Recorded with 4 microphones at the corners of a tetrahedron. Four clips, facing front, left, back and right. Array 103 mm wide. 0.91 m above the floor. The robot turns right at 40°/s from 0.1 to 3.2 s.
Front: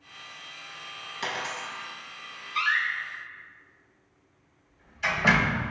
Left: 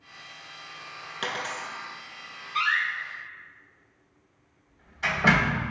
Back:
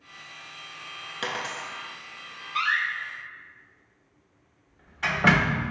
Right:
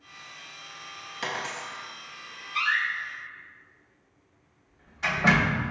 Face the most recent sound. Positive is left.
turn(degrees=175)